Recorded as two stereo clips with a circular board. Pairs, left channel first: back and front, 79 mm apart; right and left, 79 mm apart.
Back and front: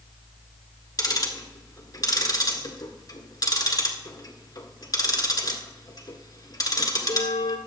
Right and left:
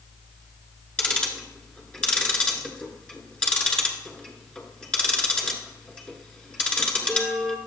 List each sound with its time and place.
1.0 s ticking: 165° right, 1.7 m